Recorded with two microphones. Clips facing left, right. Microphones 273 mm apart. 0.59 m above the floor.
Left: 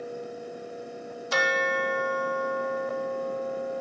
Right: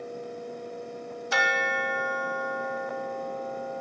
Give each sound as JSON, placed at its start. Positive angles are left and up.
{"t": 1.3, "sound": "a bell", "side_deg": 45}